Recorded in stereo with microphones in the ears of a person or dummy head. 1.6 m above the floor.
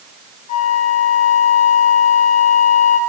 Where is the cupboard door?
I don't hear a cupboard door.